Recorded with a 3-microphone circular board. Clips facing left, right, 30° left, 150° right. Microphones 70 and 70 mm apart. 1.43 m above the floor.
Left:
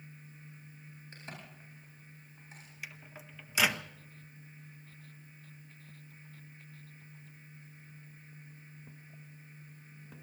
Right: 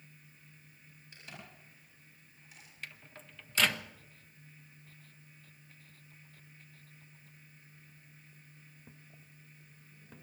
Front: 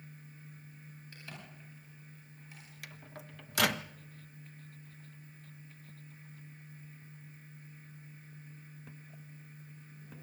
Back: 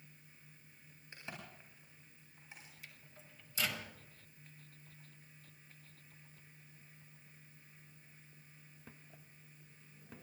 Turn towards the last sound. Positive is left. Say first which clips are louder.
# left 1 dB, front 9 dB
turn(degrees=10)